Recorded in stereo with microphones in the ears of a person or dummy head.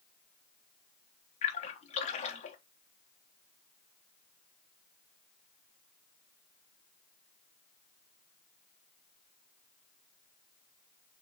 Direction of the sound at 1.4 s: 35° left (ahead or behind).